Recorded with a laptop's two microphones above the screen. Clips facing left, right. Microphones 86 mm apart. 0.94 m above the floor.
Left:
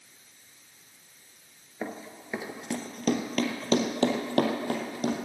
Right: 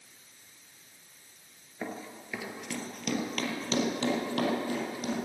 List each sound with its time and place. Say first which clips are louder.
1.8 s running footsteps: left 2 dB; 20° left (ahead or behind), 0.9 m; by 5.2 s 60° left (ahead or behind), 2 m